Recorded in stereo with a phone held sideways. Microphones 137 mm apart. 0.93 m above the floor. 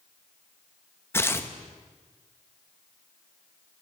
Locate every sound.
1.1 s tearing paper: 15° left (ahead or behind), 0.8 m